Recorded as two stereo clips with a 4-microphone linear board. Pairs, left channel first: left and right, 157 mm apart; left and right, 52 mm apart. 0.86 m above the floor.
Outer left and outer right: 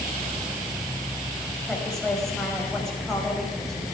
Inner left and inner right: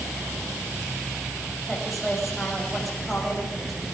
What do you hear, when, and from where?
1.7 s a woman speaking: 5° left (ahead or behind), 6 m